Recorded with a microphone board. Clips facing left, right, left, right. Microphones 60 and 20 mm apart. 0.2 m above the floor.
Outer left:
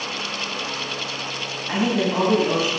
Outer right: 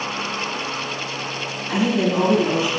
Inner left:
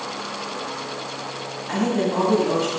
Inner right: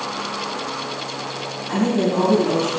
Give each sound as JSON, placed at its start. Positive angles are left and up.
{"t": 1.7, "sound": "a woman speaking", "side_deg": 35, "distance_m": 1.5}